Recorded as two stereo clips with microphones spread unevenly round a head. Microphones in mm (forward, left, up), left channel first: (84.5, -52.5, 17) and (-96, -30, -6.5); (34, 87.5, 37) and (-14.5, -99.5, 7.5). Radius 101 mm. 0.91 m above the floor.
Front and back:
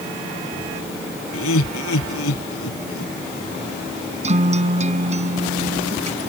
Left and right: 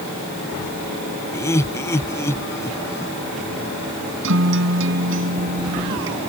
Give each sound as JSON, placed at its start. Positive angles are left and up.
{"t": 1.3, "sound": "laughter", "azimuth_deg": 0}
{"t": 4.2, "sound": "a guitar", "azimuth_deg": -130}